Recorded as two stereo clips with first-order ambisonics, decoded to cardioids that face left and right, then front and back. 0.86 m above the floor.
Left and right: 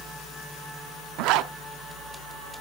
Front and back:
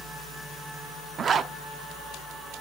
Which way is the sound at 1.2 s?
115° right.